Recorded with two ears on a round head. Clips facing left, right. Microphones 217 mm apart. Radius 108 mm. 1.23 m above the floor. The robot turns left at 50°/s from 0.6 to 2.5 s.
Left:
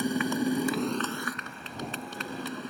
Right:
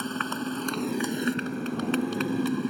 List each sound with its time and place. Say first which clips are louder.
0.0 s a motorcycle: left 4 dB; 10° left; by 2.7 s 85° right